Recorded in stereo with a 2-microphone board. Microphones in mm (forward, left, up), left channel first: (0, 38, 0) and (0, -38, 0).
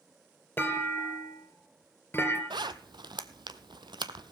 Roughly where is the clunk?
Left.